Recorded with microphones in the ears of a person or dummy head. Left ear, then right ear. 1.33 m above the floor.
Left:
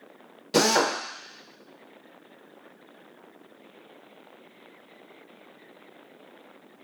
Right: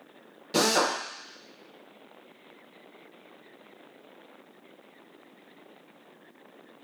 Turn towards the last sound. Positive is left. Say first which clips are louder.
# left 2 dB
turn(degrees=15)  # may be behind; listen again after turning